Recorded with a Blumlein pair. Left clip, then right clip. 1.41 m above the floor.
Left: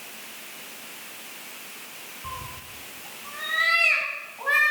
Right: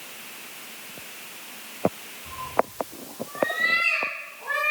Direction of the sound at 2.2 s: 50° left.